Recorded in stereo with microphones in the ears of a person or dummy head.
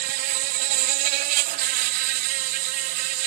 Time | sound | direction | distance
0.0 | an insect | 45° right (ahead or behind) | ?